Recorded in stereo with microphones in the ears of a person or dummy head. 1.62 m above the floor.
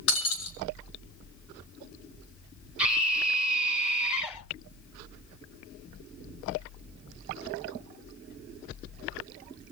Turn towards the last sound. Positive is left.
turn(degrees=-10)  # may be behind; listen again after turning